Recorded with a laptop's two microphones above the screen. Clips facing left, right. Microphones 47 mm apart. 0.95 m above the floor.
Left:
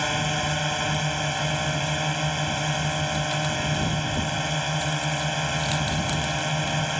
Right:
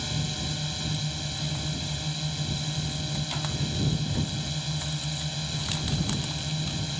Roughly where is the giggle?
No giggle in this recording.